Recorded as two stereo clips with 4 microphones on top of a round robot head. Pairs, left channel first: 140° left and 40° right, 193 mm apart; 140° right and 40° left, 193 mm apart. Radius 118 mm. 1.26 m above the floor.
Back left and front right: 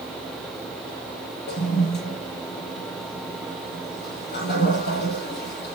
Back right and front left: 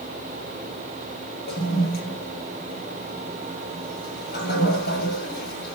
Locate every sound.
1.5 s a toilet flushing: straight behind, 7.5 m